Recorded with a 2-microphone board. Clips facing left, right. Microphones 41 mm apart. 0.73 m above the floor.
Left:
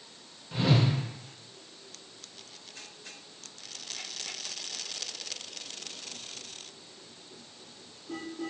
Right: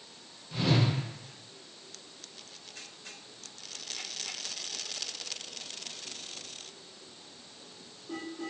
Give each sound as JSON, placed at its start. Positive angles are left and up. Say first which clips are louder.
{"t": 0.5, "sound": "a whoosh", "louder": "left 2 dB", "side_deg": 20, "distance_m": 0.7}